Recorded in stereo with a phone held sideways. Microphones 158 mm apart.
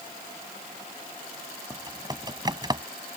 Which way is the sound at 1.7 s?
25° right (ahead or behind).